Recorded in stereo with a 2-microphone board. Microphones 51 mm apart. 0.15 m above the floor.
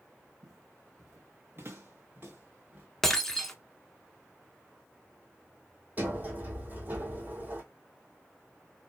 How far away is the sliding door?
About 1.5 m.